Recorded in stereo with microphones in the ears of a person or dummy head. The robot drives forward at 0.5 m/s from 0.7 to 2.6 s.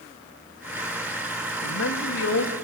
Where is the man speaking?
75° left (ahead or behind), 2 m; by 2.6 s 65° left (ahead or behind), 2.5 m.